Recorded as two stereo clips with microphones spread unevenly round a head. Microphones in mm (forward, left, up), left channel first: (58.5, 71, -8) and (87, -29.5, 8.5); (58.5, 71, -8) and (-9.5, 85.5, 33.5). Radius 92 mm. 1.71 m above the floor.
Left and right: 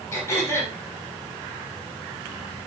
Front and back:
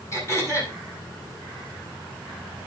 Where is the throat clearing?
45° left, 6.5 m.